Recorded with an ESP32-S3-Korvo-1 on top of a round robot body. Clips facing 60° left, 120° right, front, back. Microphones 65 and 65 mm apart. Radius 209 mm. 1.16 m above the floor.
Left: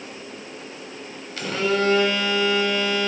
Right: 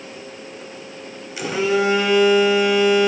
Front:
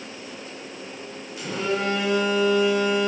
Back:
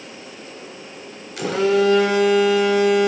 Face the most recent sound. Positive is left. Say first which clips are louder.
# right 3 dB, back 9 dB
turn(degrees=160)